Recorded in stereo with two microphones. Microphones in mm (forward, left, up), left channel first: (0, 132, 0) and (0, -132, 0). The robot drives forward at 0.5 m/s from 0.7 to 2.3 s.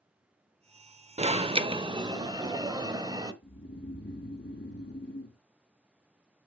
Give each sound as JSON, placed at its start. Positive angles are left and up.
{"t": 1.2, "sound": "an alarm", "side_deg": -25, "distance_m": 0.7}
{"t": 3.4, "sound": "snoring", "side_deg": 45, "distance_m": 1.5}